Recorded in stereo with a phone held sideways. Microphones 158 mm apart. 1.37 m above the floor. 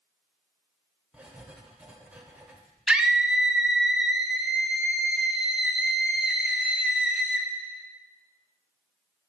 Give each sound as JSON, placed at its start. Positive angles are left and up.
{"t": 1.1, "sound": "writing", "side_deg": -10, "distance_m": 1.0}
{"t": 2.9, "sound": "a scream", "side_deg": -5, "distance_m": 0.9}